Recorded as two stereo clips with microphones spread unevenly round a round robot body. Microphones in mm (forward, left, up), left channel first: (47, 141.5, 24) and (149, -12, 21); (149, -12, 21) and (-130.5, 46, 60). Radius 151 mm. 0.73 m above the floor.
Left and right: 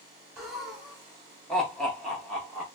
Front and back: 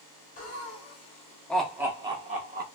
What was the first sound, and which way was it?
Laughter, 30° left.